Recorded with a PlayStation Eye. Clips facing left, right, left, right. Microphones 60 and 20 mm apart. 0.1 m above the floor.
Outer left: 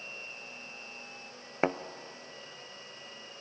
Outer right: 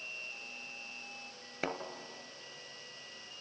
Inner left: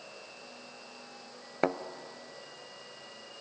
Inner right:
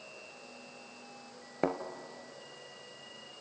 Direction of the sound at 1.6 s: 35° left (ahead or behind).